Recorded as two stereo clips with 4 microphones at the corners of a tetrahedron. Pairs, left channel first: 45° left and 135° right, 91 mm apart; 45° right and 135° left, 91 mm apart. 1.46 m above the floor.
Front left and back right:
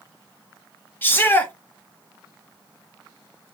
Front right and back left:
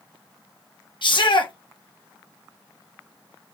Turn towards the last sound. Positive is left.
turn(degrees=-20)